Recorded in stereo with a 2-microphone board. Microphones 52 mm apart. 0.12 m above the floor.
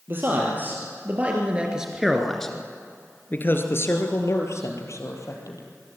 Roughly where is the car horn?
No car horn in this recording.